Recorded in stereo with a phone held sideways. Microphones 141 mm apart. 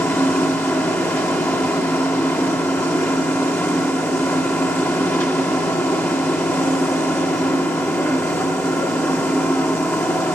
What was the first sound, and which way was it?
A machine running, 20° left (ahead or behind).